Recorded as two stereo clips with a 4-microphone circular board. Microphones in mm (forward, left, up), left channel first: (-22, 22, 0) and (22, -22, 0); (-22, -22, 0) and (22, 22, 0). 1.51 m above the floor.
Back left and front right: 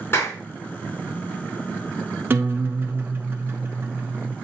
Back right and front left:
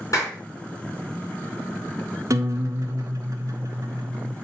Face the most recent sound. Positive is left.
turn(degrees=10)